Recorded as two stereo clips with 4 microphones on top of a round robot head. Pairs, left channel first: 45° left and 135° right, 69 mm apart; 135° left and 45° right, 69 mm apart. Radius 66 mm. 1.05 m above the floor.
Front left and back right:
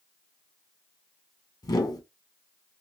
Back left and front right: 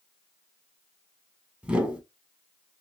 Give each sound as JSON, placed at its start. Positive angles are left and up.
{"t": 1.6, "sound": "a whoosh", "azimuth_deg": 25, "distance_m": 1.6}